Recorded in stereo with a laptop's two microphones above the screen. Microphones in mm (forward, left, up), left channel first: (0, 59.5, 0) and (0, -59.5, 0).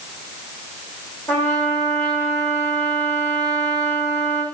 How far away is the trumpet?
About 2 m.